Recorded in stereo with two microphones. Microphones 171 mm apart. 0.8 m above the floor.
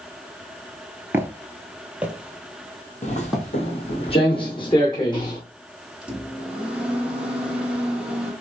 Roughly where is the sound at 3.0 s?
Left.